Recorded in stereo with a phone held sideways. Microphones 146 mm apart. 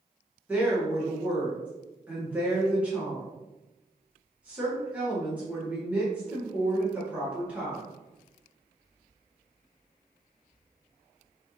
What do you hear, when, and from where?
0.5 s a woman speaking: 10° right (ahead or behind), 1.4 m